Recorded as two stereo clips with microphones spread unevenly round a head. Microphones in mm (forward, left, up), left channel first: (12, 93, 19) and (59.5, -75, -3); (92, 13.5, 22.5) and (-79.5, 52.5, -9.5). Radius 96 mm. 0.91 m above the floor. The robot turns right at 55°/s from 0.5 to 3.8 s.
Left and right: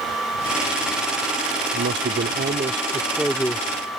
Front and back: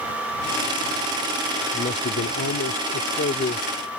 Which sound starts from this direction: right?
A man speaking, at 1.7 s.